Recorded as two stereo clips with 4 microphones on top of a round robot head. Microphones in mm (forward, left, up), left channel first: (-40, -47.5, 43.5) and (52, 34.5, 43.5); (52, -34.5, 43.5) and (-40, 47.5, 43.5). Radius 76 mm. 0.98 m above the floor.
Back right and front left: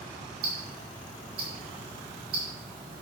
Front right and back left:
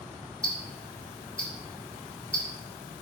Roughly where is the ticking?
Ahead left.